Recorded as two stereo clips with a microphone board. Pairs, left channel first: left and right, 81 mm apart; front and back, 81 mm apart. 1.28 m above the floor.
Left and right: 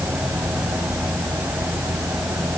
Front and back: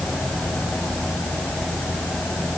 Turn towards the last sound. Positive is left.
No sound to turn to.